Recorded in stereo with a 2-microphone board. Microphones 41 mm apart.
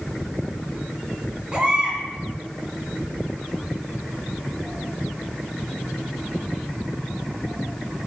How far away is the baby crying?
About 2.5 m.